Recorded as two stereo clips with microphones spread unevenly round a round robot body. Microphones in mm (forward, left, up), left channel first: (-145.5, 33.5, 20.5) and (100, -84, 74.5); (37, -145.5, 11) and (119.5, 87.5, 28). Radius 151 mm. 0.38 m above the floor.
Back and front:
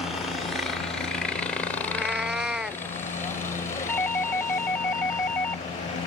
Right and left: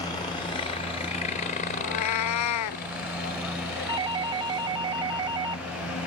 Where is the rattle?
I don't hear a rattle.